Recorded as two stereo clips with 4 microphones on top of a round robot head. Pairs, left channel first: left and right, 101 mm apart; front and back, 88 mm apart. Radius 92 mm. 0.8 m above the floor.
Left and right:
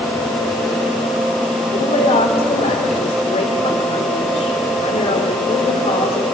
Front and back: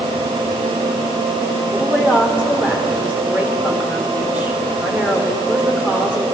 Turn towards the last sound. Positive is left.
turn(degrees=105)